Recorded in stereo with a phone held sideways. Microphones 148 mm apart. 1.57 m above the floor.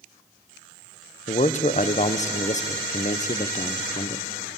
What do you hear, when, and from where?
1.3 s a man speaking: 50° left (ahead or behind), 0.6 m